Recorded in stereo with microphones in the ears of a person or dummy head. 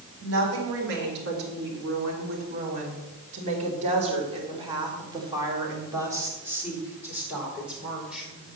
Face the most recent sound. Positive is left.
turn(degrees=-5)  # may be behind; listen again after turning